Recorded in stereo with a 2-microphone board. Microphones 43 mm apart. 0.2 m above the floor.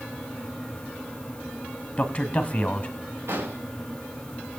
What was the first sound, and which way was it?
A man speaking, 25° left (ahead or behind).